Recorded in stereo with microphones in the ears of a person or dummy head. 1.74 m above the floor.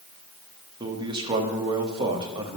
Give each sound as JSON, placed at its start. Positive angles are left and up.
{"t": 0.8, "sound": "a man speaking", "side_deg": -20, "distance_m": 1.1}